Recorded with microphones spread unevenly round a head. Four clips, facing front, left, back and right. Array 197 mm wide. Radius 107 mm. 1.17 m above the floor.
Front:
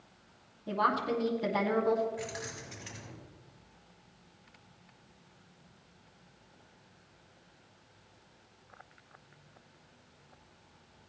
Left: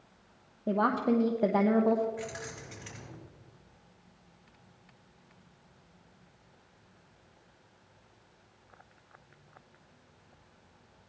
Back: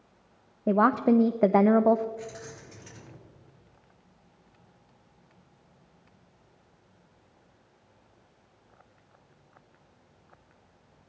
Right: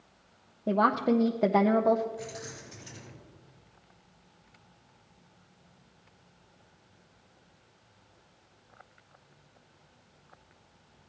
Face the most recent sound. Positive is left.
turn(degrees=65)